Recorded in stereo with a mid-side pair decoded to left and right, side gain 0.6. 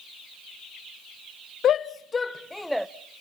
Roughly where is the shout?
Ahead left.